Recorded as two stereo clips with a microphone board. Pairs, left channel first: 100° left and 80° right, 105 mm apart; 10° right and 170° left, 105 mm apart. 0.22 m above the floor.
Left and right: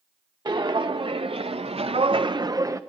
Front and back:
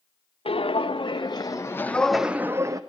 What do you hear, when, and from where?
0.5 s footsteps: 35° right, 1.1 m; by 2.8 s 135° right, 0.7 m